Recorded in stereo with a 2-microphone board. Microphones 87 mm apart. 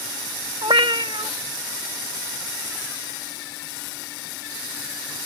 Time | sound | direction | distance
0.6 | a cat meowing | 70° right (ahead or behind) | ?